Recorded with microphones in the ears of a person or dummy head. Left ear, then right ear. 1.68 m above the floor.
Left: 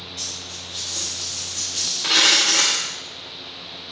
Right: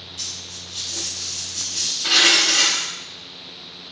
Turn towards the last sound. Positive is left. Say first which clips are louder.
# even
turn(degrees=25)  # may be behind; listen again after turning